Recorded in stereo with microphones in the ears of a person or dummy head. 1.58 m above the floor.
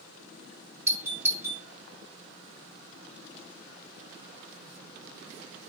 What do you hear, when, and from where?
0.9 s a doorbell: 15° right (ahead or behind), 1.0 m